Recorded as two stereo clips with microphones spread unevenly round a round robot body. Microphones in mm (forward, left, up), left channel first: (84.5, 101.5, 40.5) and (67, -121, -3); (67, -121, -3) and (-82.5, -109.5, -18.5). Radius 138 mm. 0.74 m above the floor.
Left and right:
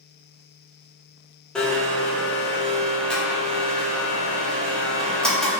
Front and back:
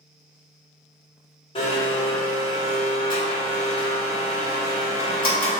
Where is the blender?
20° right, 0.8 m.